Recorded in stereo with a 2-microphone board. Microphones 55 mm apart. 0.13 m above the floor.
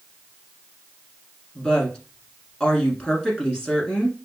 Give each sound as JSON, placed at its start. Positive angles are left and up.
{"t": 1.6, "sound": "a woman speaking", "side_deg": 15, "distance_m": 1.3}